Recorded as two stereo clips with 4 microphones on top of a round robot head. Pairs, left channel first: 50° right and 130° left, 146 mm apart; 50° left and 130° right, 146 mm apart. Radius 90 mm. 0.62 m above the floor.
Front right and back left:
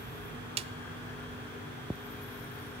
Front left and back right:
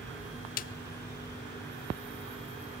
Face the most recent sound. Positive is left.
turn(degrees=80)